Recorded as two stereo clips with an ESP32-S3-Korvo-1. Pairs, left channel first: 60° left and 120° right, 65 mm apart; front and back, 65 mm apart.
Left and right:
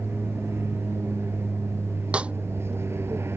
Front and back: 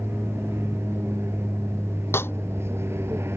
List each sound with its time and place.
0.0 s an aircraft: 150° right
2.1 s a snare drum: 50° right